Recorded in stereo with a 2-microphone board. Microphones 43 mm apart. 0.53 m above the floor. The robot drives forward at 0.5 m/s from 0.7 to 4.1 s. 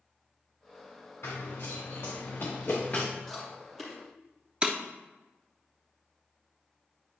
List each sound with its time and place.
1.2 s running footsteps: 80° left, 3 m; by 3.1 s 35° left (ahead or behind), 2.5 m
3.3 s chewing: 5° left (ahead or behind), 3.5 m; by 4.0 s centre (ahead or behind), 3.5 m
4.6 s breaking glass: 25° right (ahead or behind), 0.9 m